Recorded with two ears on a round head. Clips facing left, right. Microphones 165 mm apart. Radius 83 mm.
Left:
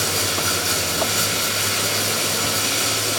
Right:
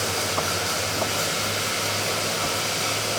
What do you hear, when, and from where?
0.0 s running water: 45° left (ahead or behind), 4 m